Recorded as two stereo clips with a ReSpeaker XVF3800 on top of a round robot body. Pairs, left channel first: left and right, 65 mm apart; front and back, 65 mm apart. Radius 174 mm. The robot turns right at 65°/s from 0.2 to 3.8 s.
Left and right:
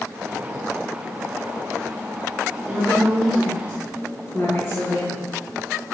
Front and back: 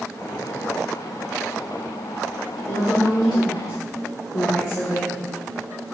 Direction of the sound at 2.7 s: 35° right.